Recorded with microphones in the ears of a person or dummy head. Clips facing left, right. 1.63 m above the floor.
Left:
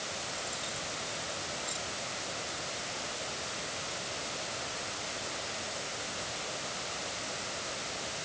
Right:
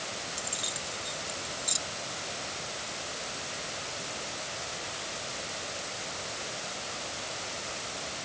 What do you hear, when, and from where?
0.4 s keys jangling: 30° right (ahead or behind)